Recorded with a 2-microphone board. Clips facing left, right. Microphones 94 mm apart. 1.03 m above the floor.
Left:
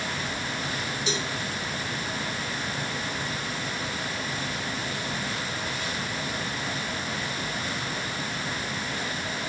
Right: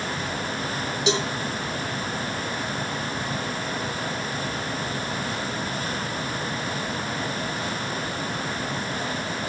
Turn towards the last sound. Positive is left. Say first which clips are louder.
# right 9 dB
turn(degrees=-75)  # may be behind; listen again after turning